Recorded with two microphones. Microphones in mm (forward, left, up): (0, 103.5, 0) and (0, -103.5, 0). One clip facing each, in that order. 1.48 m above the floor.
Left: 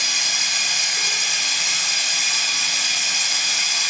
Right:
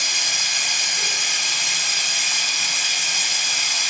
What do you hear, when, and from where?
0.0 s running water: 5° left (ahead or behind), 1.9 m